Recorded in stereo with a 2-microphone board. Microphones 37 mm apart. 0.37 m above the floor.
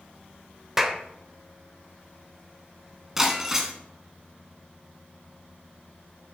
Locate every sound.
0.8 s a clap: 10° right (ahead or behind), 0.8 m
3.2 s breaking glass: 10° right (ahead or behind), 1.4 m